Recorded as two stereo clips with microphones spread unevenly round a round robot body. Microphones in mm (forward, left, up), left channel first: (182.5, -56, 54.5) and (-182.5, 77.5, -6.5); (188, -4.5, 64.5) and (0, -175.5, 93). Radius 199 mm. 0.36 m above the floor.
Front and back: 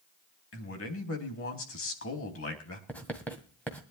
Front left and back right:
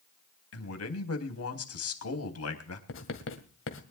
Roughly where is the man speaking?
Ahead left.